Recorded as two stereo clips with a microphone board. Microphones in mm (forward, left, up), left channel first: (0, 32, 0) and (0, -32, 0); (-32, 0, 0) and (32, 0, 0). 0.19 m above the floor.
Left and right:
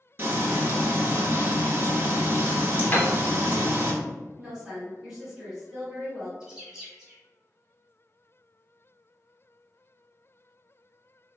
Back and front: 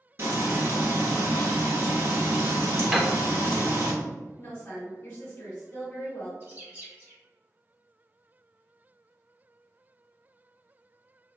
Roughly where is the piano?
Left.